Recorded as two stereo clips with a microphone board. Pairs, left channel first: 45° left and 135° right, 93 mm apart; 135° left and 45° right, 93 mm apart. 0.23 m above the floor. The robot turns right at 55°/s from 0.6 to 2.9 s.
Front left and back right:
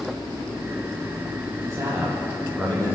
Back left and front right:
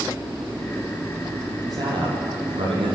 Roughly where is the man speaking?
Right.